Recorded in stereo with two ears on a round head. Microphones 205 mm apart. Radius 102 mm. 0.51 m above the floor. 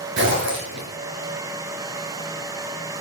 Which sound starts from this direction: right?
A zipper, at 0.2 s.